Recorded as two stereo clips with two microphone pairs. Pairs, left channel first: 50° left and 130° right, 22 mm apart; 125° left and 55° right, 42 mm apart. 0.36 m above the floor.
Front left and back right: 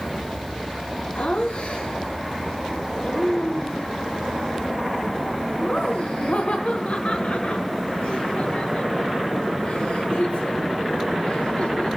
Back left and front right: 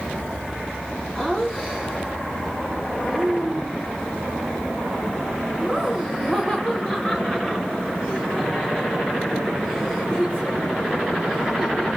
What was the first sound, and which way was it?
Laughter, 20° left.